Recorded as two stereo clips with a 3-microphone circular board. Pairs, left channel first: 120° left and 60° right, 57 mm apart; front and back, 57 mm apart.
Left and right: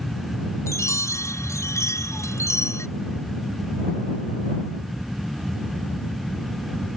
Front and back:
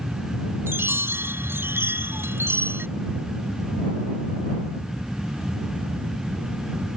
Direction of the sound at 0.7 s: 140° left.